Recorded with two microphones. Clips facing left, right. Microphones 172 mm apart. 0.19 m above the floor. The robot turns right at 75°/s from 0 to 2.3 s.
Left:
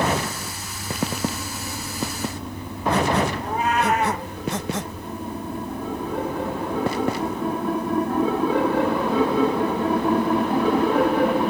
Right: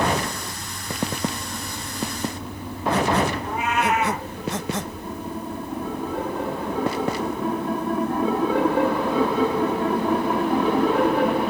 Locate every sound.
3.4 s a cat meowing: 35° left (ahead or behind), 2.5 m